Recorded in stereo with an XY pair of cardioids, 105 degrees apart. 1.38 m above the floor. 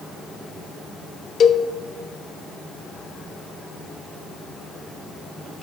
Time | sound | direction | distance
1.4 | a cowbell | 55° left | 0.6 m